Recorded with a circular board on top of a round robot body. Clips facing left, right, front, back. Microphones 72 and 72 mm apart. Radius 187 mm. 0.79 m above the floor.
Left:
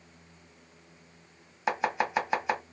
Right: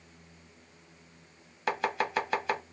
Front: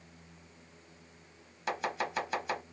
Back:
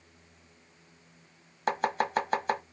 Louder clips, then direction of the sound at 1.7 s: Left 2 dB, back 6 dB; 160° left.